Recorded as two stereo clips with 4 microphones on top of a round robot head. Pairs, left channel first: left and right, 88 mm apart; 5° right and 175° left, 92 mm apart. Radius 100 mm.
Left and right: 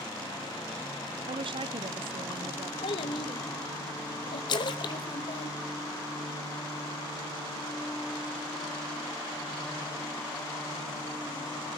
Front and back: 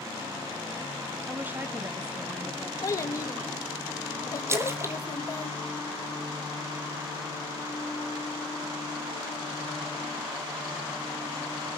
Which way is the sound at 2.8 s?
50° left.